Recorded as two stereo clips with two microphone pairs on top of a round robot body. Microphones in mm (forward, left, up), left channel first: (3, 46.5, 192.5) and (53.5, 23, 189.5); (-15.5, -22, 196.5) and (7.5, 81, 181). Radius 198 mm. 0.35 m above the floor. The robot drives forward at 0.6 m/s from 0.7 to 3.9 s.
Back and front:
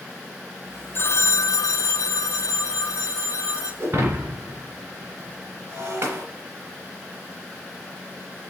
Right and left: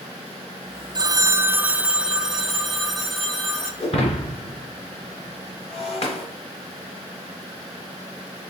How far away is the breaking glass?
About 1.7 m.